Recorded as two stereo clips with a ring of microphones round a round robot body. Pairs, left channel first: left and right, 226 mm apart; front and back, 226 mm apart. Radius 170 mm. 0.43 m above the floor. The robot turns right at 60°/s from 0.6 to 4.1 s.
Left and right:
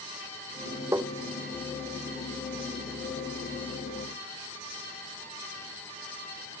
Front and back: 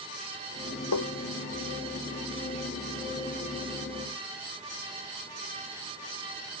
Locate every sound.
0.9 s tapping: 10° right; by 1.1 s straight ahead